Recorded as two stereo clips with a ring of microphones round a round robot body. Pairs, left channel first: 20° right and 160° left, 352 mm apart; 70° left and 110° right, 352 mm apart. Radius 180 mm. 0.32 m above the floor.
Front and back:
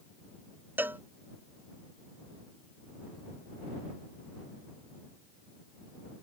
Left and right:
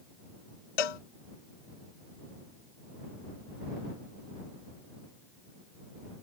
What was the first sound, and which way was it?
A cowbell, 75° left.